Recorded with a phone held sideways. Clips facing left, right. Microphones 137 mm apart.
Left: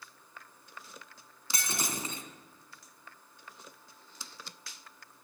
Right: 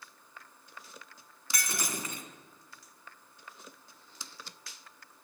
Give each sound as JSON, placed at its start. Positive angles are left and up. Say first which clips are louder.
{"t": 1.5, "sound": "breaking glass", "louder": "even", "side_deg": 25, "distance_m": 2.0}